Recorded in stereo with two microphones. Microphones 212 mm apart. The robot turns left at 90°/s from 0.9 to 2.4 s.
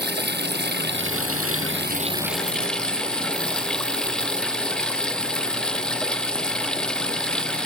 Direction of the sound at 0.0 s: 50° right.